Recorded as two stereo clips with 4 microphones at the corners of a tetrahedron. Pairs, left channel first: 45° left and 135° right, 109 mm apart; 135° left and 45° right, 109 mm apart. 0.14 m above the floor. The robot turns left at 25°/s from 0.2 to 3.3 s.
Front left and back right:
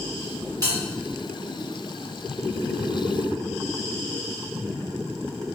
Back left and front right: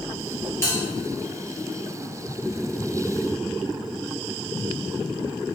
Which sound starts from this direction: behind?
A bell, at 0.6 s.